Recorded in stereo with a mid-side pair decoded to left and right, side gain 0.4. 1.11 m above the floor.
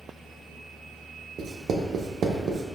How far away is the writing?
About 0.5 m.